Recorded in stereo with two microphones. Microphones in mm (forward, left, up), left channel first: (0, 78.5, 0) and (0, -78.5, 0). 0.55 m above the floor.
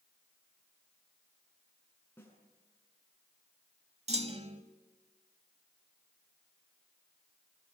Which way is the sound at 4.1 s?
40° right (ahead or behind).